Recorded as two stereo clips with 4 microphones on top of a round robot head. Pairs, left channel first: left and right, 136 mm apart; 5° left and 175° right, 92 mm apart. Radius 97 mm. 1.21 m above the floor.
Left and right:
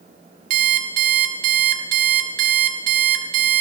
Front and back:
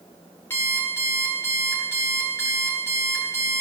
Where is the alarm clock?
75° right, 1.6 m.